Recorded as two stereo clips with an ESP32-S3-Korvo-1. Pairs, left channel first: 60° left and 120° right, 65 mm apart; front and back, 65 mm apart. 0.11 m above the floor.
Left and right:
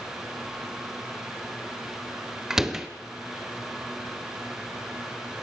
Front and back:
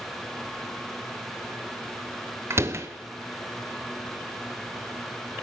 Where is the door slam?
160° left, 1.5 m.